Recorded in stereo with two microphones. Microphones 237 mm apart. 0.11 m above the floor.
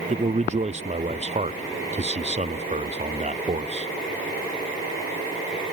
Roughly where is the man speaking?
Right.